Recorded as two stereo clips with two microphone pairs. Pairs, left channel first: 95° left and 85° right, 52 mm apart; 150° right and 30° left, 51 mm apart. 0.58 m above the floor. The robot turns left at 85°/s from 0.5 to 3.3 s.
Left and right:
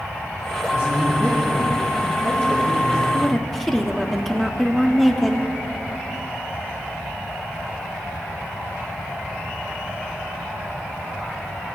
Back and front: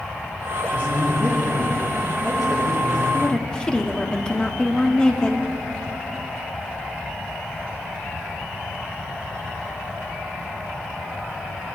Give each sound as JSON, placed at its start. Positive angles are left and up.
{"t": 0.7, "sound": "a man speaking", "azimuth_deg": 85, "distance_m": 5.0}
{"t": 3.1, "sound": "a woman speaking", "azimuth_deg": -165, "distance_m": 1.0}